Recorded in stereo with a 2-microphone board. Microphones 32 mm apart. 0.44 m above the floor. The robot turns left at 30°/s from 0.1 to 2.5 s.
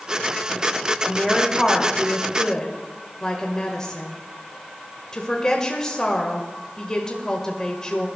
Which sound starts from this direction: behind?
A woman speaking, at 1.0 s.